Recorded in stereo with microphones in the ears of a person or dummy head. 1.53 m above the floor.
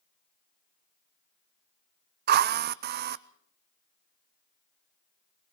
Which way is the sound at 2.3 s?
45° right (ahead or behind).